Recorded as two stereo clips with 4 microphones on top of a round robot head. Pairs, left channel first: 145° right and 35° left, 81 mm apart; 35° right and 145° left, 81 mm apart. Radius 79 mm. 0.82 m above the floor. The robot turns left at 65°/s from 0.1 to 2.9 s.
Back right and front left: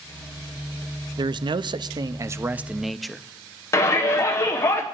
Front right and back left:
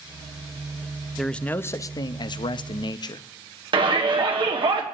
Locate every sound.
1.2 s a man speaking: 55° left, 0.6 m; by 3.2 s 55° right, 0.6 m
3.7 s a shout: 160° left, 1.9 m